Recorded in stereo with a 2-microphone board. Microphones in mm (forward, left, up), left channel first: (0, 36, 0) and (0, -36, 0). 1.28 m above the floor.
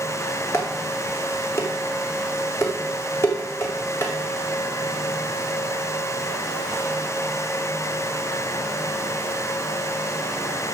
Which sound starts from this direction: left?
Dishes clattering, at 0.5 s.